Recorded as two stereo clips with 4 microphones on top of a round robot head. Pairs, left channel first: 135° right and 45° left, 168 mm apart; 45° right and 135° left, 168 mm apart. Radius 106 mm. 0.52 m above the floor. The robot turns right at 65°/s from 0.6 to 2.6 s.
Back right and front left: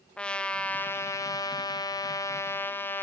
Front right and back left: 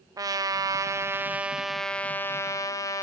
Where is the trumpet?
150° left, 0.7 m; by 3.0 s 80° right, 0.7 m.